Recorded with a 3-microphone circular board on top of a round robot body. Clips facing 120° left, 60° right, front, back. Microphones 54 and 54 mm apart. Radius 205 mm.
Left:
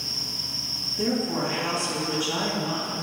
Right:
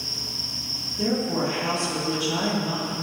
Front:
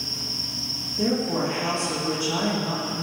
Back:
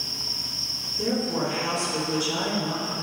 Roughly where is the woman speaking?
Ahead left.